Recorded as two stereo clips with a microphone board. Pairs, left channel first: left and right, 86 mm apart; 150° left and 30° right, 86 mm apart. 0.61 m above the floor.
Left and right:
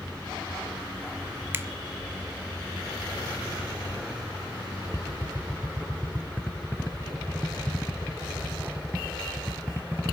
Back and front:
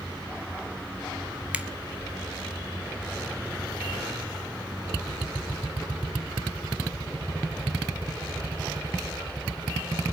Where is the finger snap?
85° right, 0.8 m.